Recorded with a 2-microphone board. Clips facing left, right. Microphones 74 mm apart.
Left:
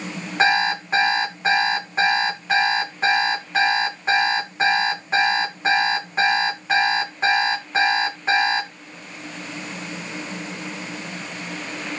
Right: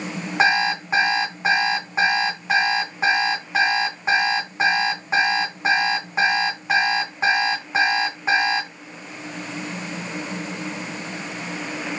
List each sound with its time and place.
0.4 s an alarm clock: 10° right (ahead or behind), 3 m